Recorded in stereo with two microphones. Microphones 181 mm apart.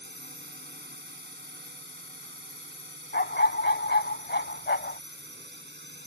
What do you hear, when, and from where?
0.0 s a drone: 65° right (ahead or behind); by 6.1 s 70° right (ahead or behind)
3.1 s a dog barking: 70° left (ahead or behind)